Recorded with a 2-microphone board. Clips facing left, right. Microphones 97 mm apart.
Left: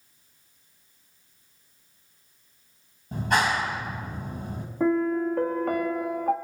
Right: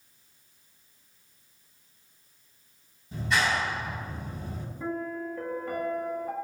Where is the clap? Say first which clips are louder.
Left 3 dB; 50° left (ahead or behind), 3.5 m.